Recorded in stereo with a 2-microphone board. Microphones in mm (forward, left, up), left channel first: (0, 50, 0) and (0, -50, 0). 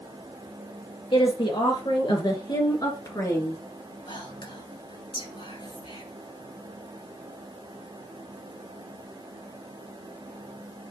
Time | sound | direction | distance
1.1 | a woman speaking | 60° left (ahead or behind) | 3 m
4.1 | whispering | 60° left (ahead or behind) | 3 m